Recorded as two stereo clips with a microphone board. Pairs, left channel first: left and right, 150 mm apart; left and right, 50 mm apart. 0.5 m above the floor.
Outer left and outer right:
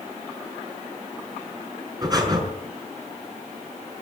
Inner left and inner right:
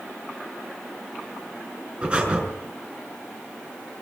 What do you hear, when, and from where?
2.0 s breathing: 25° right (ahead or behind), 5.5 m